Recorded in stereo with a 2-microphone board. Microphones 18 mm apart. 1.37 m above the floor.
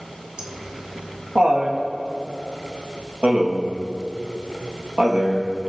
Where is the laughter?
55° right (ahead or behind), 2.5 m; by 5.5 s 60° right (ahead or behind), 2 m.